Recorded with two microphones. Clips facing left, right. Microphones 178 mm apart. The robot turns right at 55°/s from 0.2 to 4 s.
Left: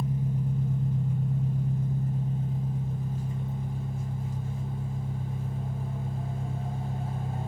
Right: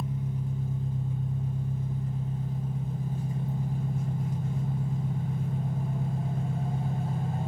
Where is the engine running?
35° left, 1.6 m; by 7.5 s 115° right, 1.6 m.